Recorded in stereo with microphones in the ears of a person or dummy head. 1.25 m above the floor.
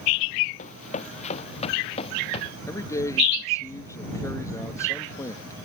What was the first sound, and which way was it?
Running footsteps, 40° left (ahead or behind).